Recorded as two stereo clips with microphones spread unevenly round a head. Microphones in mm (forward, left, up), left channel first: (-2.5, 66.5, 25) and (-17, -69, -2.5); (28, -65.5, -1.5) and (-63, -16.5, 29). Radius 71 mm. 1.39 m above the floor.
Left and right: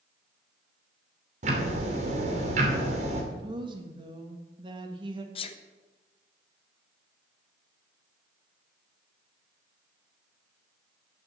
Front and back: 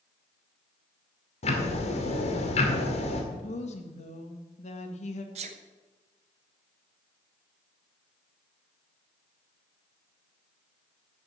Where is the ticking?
50° right, 2 m.